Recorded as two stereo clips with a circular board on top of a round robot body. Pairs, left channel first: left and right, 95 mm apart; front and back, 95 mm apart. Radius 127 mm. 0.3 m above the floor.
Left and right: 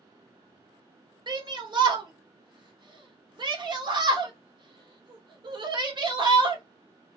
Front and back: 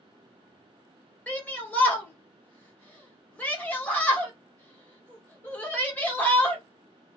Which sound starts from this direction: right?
A shout, at 1.3 s.